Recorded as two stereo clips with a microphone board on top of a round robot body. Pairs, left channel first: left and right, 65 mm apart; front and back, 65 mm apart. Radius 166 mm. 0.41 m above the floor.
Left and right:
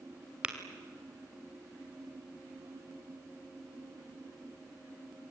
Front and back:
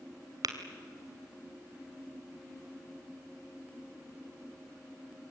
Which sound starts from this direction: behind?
Tapping, at 0.4 s.